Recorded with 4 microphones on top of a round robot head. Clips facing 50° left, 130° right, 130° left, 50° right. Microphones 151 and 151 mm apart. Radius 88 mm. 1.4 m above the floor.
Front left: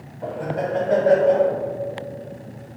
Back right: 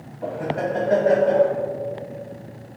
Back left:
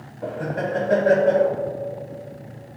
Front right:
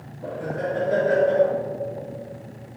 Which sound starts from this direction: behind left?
Laughter, at 0.2 s.